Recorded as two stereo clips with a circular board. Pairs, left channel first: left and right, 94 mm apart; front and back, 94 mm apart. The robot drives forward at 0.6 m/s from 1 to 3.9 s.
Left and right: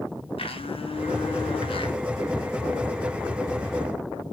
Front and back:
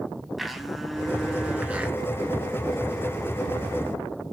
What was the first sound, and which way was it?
A blender, 90° left.